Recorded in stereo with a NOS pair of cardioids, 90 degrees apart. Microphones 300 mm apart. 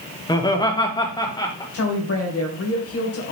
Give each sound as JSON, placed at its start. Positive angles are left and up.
{"t": 0.3, "sound": "laughter", "azimuth_deg": 15, "distance_m": 1.6}
{"t": 1.7, "sound": "a woman speaking", "azimuth_deg": 50, "distance_m": 2.0}